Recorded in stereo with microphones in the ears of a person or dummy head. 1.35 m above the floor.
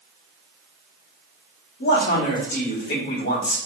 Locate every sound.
1.8 s a man speaking: 60° left (ahead or behind), 1.3 m